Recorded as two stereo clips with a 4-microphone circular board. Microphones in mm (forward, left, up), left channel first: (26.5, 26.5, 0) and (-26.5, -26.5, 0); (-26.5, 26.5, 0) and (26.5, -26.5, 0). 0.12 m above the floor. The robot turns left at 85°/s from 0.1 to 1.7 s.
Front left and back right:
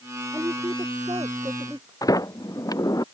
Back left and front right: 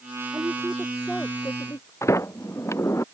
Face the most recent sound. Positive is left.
turn(degrees=85)